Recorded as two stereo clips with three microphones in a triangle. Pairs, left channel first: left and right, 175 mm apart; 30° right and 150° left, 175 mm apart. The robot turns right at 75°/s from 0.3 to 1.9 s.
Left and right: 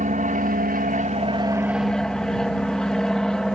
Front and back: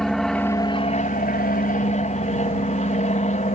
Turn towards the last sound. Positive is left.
turn(degrees=5)